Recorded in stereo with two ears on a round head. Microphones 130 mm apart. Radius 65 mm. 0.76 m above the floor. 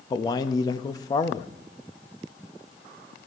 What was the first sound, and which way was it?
A man speaking, 25° left (ahead or behind).